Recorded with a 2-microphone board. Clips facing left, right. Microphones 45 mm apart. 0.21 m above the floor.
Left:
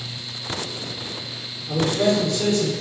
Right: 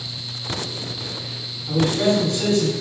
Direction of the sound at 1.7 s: 20° right (ahead or behind).